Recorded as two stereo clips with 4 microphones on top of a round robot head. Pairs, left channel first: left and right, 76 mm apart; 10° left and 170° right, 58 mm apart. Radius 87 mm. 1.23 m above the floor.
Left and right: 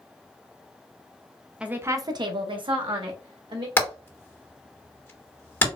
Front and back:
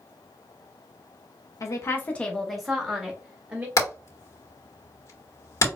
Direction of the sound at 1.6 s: 10° right.